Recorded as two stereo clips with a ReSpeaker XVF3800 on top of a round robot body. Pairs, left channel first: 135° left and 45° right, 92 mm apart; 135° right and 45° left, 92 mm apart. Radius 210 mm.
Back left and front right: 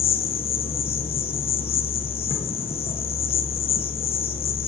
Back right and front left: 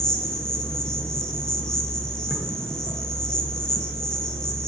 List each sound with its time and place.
0.0 s an insect: 140° left, 1.2 m